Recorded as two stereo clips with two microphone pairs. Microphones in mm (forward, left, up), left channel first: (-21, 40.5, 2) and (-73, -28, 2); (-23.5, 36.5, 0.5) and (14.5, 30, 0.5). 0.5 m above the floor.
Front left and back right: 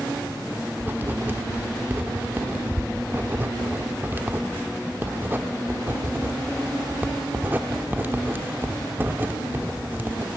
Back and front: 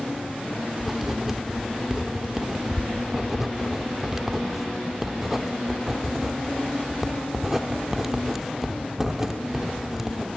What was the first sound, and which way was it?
Writing, 80° right.